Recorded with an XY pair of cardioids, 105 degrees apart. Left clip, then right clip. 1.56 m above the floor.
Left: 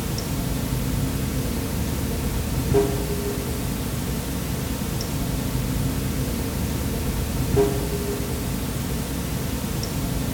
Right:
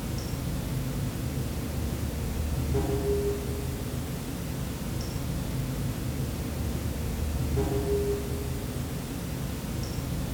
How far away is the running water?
About 0.8 m.